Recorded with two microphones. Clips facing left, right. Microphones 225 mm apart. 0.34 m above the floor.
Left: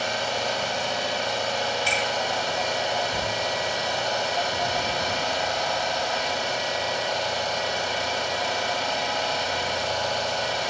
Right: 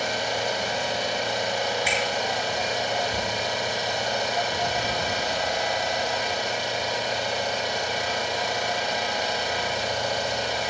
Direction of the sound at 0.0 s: 10° right (ahead or behind).